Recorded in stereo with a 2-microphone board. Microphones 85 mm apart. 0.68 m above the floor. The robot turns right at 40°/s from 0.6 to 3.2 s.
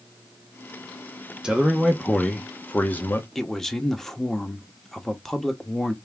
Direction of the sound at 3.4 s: 5° left (ahead or behind).